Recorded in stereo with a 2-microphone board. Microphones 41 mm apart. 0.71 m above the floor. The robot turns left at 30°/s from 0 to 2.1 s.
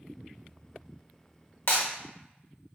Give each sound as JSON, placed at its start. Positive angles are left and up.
{"t": 1.7, "sound": "breaking glass", "side_deg": 65, "distance_m": 1.2}